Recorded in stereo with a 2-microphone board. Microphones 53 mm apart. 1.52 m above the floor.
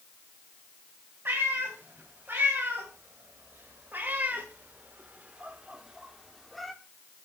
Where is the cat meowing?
40° right (ahead or behind), 3.5 m; by 6.7 s 5° left (ahead or behind), 1.1 m.